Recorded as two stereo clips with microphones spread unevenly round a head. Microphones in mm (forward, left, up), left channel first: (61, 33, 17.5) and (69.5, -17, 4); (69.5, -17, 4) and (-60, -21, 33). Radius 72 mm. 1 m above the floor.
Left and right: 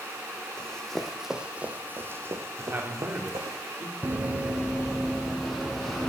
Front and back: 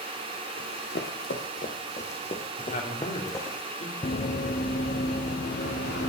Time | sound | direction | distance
0.6 | running footsteps | 35° left | 2 m
2.6 | a man speaking | 30° right | 3.5 m
4.0 | running footsteps | 30° right | 1.1 m